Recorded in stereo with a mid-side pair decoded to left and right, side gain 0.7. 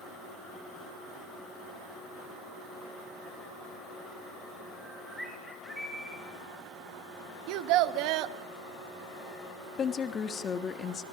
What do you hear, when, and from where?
4.7 s a bird: straight ahead, 4.5 m
7.5 s a child speaking: 65° right, 1.2 m
9.8 s a woman speaking: 30° left, 1.5 m